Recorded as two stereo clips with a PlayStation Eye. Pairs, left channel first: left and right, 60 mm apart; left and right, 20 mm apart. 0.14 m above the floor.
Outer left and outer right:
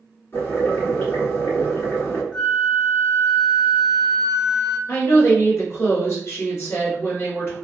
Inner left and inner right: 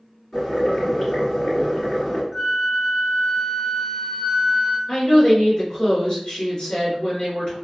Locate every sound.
0.3 s boiling: 35° left (ahead or behind), 1.9 m
2.3 s a flute: 10° right (ahead or behind), 0.8 m
4.9 s a woman speaking: 45° left (ahead or behind), 1.6 m